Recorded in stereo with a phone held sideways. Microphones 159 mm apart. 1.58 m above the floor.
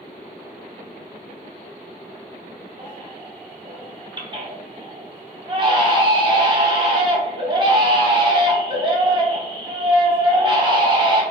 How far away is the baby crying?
About 0.6 m.